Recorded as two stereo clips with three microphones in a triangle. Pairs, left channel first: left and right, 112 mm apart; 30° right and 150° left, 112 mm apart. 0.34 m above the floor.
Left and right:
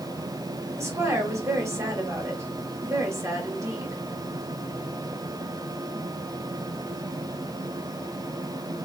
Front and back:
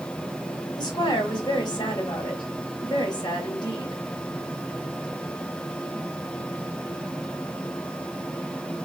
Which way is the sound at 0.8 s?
40° right.